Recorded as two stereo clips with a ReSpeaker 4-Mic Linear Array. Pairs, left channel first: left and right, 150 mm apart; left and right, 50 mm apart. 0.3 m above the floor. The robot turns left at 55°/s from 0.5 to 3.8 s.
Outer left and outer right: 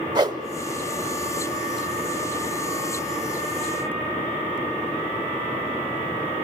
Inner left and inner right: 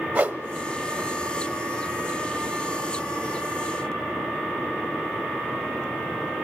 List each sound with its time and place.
0.1 s a whoosh: 30° right (ahead or behind), 0.8 m